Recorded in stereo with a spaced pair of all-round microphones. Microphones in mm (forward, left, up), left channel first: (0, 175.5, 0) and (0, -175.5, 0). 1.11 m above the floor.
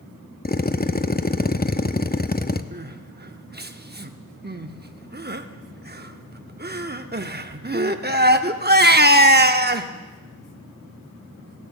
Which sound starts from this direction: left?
A drill, at 0.5 s.